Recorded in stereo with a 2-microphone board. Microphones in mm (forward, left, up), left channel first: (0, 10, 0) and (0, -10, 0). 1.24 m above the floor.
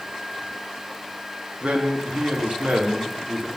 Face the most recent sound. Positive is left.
turn(degrees=-80)